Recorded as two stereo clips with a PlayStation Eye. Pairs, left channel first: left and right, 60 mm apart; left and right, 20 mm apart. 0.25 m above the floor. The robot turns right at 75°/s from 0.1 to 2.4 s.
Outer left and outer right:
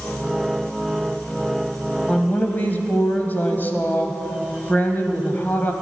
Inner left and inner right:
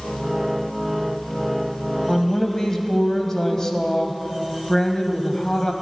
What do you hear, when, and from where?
2.1 s a woman speaking: 20° left (ahead or behind), 1.2 m; by 5.7 s 30° left (ahead or behind), 1.2 m